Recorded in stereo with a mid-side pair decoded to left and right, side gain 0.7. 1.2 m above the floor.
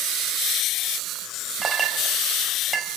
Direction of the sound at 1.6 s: 15° right.